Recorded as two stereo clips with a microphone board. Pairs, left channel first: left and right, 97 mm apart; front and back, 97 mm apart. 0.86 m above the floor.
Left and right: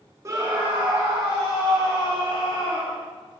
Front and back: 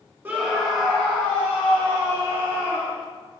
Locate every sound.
0.2 s a scream: 125° right, 0.7 m; by 3.0 s 65° right, 3.5 m